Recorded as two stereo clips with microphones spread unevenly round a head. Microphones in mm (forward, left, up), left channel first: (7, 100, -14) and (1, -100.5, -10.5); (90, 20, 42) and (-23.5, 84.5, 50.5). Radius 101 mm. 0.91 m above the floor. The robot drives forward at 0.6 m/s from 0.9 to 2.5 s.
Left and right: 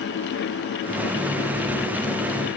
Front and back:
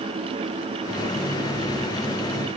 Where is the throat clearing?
No throat clearing in this recording.